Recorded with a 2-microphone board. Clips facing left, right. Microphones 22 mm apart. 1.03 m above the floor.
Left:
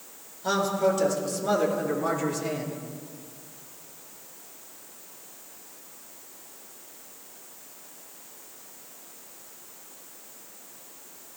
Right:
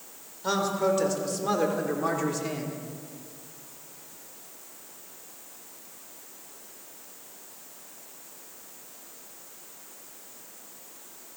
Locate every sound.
0.4 s a man speaking: 5° right (ahead or behind), 4.5 m